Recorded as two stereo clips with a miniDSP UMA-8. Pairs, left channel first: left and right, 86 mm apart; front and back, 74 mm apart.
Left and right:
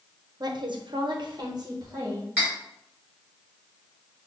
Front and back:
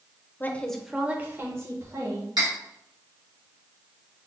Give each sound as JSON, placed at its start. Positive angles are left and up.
{"t": 0.4, "sound": "a woman speaking", "azimuth_deg": -60, "distance_m": 0.6}
{"t": 2.4, "sound": "cutlery clinking", "azimuth_deg": -160, "distance_m": 2.0}